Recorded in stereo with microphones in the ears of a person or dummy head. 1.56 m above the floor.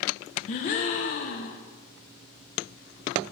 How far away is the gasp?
About 0.7 m.